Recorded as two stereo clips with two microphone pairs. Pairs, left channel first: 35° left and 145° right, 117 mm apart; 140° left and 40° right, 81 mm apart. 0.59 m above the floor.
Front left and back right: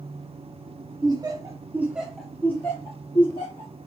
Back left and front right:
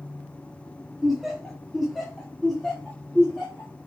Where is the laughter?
125° right, 1.0 m; by 3.7 s 60° left, 1.1 m.